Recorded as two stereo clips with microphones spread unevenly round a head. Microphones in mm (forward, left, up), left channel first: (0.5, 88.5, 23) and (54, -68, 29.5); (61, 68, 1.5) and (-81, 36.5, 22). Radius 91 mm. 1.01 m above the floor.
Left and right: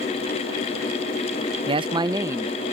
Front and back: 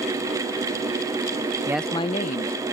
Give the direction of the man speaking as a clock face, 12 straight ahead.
3 o'clock.